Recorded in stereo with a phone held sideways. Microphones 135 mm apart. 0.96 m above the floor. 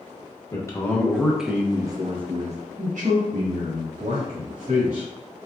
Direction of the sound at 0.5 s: 25° left (ahead or behind).